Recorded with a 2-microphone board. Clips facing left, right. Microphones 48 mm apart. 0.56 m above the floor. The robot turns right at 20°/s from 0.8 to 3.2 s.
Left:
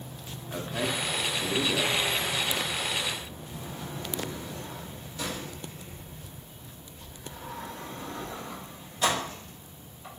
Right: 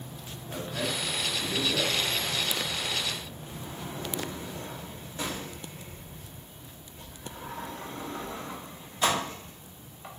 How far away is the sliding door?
About 1.0 m.